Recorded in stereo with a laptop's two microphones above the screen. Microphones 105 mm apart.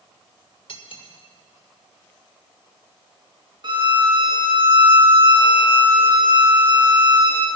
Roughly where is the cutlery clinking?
Left.